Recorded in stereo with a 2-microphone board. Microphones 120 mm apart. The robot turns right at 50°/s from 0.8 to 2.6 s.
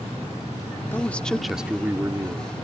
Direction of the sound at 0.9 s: 155° left.